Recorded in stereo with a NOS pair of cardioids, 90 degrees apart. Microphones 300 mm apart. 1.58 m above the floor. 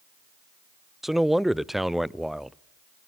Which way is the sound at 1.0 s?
Straight ahead.